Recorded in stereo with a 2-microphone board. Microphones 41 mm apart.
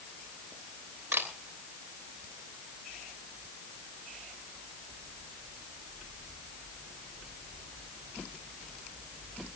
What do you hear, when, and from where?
1.1 s a camera shutter: 65° right (ahead or behind), 3 m